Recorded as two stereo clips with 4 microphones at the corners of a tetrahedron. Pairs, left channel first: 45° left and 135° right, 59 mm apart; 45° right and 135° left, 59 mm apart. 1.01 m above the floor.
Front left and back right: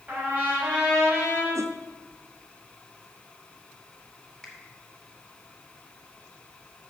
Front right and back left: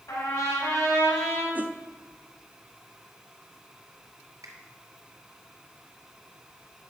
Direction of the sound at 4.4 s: 120° left.